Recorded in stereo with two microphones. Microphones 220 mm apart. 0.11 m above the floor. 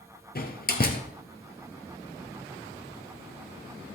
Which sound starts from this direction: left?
A door slam, at 0.3 s.